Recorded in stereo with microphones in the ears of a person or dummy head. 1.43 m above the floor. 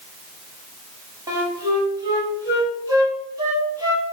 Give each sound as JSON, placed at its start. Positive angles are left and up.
{"t": 1.3, "sound": "a flute", "side_deg": -20, "distance_m": 0.8}